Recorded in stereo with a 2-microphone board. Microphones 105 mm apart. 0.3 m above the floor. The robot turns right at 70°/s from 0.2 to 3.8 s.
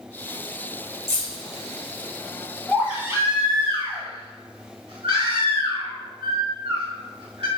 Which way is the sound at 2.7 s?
Centre (ahead or behind).